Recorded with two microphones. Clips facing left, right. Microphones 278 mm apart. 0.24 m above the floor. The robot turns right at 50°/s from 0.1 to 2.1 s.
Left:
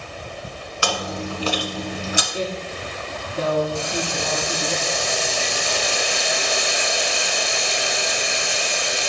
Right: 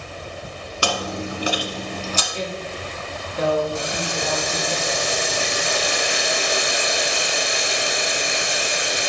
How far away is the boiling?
About 0.8 m.